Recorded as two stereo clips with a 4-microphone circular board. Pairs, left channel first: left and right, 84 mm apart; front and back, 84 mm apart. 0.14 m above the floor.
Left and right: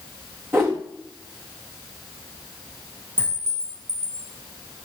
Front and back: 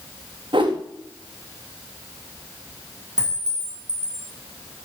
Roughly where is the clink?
Right.